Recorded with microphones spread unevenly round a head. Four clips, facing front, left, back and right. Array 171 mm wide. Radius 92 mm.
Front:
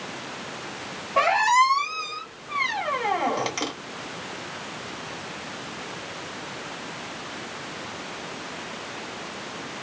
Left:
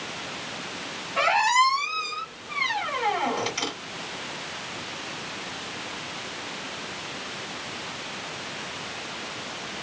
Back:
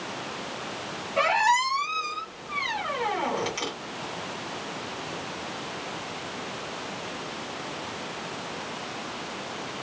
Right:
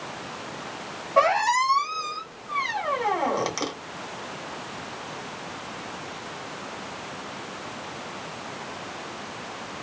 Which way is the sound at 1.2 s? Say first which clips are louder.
Right 1 dB, front 4 dB; 60° right.